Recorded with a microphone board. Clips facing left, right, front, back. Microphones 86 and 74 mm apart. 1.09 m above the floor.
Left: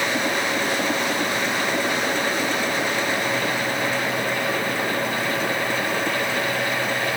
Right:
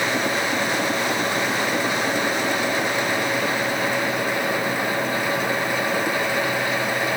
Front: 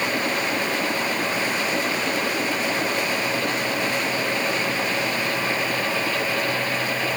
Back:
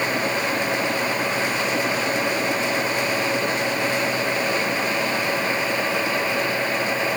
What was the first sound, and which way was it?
Only background noise.